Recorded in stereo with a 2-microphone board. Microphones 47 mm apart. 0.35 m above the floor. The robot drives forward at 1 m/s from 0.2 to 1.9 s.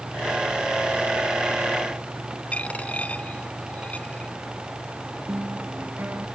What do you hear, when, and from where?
2.5 s a dropped coin: 30° left (ahead or behind)
5.3 s a guitar: 40° right (ahead or behind)